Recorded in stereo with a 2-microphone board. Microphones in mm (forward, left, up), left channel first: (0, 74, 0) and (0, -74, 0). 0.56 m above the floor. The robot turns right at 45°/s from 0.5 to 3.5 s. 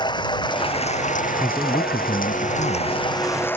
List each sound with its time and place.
0.0 s running water: 30° left; by 3.6 s 165° left
1.4 s a man speaking: 10° left; by 3.1 s 85° left